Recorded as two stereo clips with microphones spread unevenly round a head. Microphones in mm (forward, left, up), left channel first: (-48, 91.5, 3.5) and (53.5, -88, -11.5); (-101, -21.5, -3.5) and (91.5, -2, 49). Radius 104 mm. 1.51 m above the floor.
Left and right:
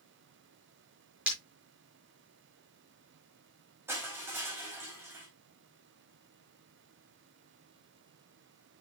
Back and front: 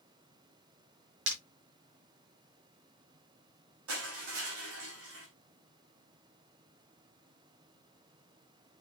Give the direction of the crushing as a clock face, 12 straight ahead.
11 o'clock.